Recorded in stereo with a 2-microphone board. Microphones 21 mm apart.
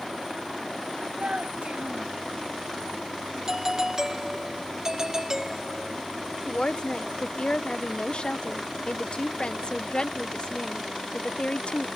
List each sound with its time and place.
1.2 s a child speaking: 70° right (ahead or behind)
3.5 s a doorbell: 25° right (ahead or behind)
6.5 s a woman speaking: 55° left (ahead or behind)